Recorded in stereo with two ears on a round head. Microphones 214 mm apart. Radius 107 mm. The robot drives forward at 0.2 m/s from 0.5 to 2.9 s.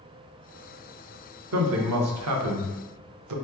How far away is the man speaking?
About 0.9 m.